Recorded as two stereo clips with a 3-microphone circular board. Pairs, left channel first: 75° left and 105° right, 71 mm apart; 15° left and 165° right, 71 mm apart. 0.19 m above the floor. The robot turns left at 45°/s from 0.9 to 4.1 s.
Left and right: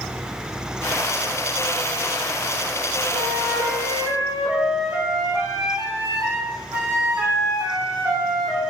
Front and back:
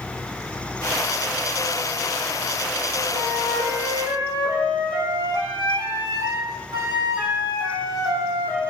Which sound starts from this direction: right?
A flute, at 3.1 s.